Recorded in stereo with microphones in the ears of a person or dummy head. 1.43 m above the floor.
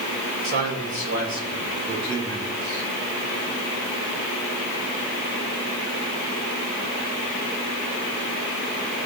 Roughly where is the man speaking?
Right.